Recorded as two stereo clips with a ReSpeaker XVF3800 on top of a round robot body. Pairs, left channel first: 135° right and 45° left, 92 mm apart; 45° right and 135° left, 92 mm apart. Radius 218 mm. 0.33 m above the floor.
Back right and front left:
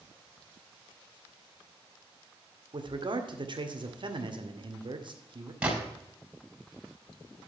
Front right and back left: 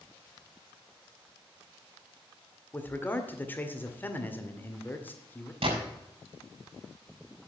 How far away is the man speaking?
About 2 m.